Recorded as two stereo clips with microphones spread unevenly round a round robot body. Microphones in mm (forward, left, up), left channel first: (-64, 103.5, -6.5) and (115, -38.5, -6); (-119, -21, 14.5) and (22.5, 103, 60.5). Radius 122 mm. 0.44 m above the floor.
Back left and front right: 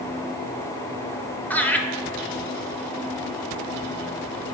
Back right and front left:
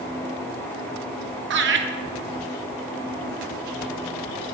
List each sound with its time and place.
1.5 s laughter: 60° left, 1.2 m